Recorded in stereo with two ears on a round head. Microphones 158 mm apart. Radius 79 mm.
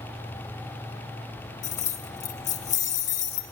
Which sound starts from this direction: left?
Keys jangling, at 1.6 s.